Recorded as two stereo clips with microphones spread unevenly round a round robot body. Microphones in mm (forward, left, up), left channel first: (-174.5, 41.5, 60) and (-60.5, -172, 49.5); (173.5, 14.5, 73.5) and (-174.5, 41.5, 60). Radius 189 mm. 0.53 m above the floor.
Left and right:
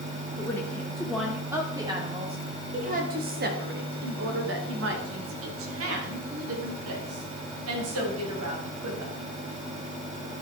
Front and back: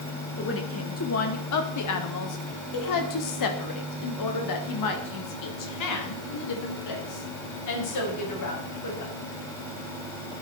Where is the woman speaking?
40° left, 1.7 m; by 9.1 s 45° right, 4.5 m.